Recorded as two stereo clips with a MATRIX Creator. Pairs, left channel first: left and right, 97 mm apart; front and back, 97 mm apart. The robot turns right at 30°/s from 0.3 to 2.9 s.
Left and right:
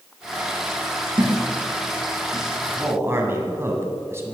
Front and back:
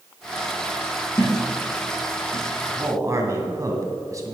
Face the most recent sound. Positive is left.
turn(degrees=-140)